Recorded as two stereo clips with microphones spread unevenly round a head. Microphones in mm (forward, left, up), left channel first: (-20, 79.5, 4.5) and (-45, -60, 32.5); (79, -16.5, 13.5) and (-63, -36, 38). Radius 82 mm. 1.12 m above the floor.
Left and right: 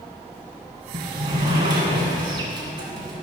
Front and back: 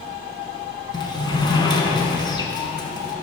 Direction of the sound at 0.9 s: 55° right.